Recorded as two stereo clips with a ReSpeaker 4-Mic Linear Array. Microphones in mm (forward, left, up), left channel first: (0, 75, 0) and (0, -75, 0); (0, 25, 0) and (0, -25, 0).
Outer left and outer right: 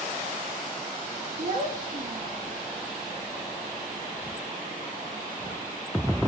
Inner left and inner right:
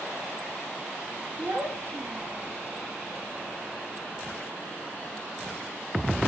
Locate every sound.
1.4 s a child speaking: 55° right (ahead or behind), 1.3 m